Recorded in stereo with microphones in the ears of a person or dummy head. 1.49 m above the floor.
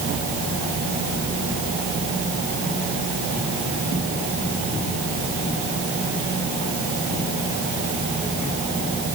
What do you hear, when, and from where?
Only background noise.